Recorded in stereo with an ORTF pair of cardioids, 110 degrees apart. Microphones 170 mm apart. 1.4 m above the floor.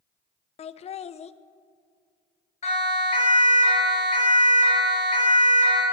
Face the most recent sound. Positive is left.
turn(degrees=45)